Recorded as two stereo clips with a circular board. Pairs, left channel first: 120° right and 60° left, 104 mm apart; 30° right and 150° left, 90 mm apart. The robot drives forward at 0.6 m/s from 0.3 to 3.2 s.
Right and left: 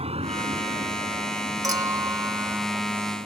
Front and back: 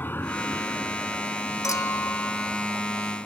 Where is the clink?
10° left; by 2.7 s 50° left.